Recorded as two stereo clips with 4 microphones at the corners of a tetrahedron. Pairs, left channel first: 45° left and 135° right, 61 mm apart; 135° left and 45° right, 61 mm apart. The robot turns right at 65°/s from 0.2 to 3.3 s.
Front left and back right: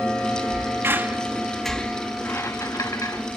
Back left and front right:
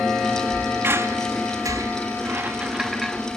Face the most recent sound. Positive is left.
turn(degrees=65)